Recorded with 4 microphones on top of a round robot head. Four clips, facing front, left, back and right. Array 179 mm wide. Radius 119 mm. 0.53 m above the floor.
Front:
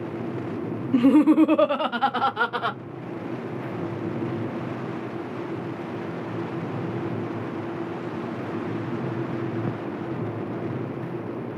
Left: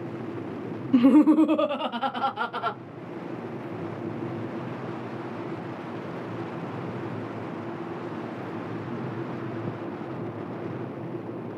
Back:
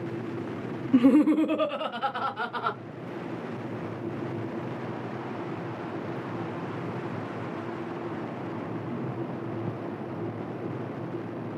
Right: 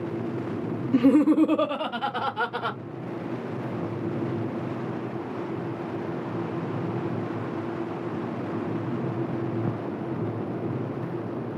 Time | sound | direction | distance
0.9 | laughter | 85° left | 0.7 m